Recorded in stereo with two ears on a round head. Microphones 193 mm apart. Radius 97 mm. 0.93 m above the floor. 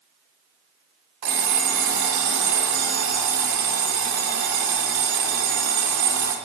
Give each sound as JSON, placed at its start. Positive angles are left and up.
{"t": 1.2, "sound": "an alarm clock", "side_deg": -90, "distance_m": 1.6}